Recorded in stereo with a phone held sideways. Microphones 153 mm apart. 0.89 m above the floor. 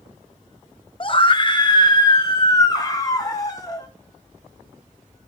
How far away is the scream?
About 0.9 m.